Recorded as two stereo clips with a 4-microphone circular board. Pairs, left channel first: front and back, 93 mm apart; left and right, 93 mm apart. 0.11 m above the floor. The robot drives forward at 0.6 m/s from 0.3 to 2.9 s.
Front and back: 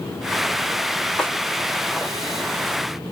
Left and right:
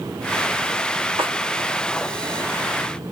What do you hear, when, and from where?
1.2 s a snare drum: 80° right, 4 m